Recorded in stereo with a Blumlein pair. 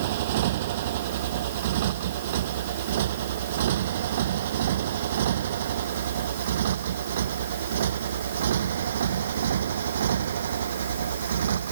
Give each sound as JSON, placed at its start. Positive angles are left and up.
{"t": 0.0, "sound": "a motorcycle", "azimuth_deg": -55}